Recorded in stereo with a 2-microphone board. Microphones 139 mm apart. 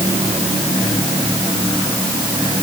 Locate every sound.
Only background noise.